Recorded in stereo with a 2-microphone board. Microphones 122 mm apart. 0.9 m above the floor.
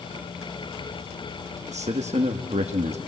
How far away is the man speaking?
About 0.9 m.